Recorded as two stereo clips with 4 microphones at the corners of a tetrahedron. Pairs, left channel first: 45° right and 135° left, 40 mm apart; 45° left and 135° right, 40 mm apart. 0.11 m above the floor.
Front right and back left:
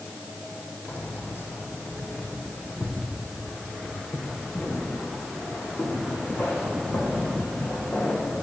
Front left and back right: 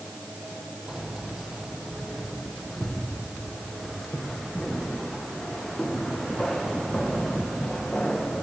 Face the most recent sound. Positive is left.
turn(degrees=-30)